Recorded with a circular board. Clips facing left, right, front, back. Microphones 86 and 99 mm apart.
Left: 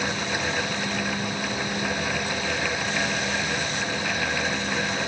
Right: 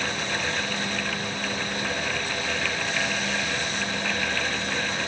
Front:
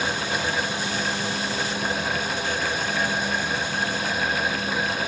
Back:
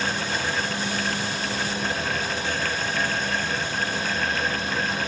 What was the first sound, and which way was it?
Only background noise.